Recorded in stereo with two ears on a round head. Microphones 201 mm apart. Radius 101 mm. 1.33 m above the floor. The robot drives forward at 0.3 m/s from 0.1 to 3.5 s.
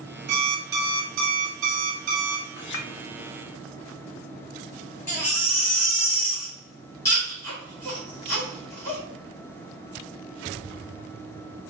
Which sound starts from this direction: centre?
A baby crying, at 5.1 s.